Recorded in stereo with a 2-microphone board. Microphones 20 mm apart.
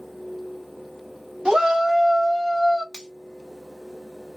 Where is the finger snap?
30° left (ahead or behind), 1.1 m.